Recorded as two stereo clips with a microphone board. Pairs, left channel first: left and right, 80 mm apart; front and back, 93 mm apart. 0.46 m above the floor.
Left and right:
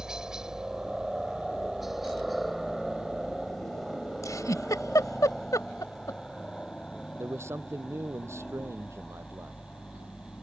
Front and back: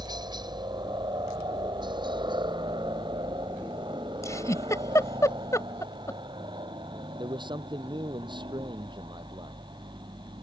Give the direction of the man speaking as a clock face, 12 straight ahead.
5 o'clock.